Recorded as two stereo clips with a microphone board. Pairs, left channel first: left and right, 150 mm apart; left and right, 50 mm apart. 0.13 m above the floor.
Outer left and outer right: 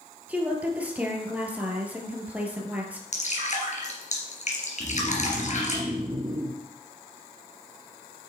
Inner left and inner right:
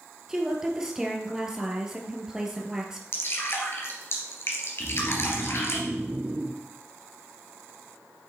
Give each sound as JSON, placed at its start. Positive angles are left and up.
{"t": 0.3, "sound": "a woman speaking", "side_deg": -10, "distance_m": 2.5}
{"t": 3.1, "sound": "dripping", "side_deg": 55, "distance_m": 3.0}
{"t": 4.8, "sound": "snoring", "side_deg": -25, "distance_m": 1.8}